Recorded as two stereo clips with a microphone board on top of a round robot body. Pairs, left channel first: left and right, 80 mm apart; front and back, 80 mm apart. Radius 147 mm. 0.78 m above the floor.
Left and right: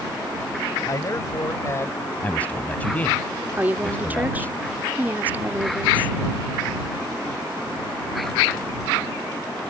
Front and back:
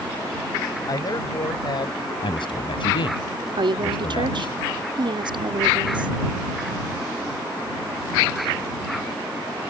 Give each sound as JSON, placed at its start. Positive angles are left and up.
{"t": 0.9, "sound": "a man speaking", "azimuth_deg": 40}
{"t": 2.2, "sound": "a man speaking", "azimuth_deg": 20}
{"t": 3.6, "sound": "a woman speaking", "azimuth_deg": -160}